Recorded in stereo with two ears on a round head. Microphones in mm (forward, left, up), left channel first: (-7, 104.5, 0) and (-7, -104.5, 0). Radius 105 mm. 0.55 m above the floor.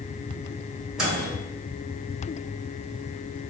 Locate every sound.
1.0 s a microwave: 5° right (ahead or behind), 1.6 m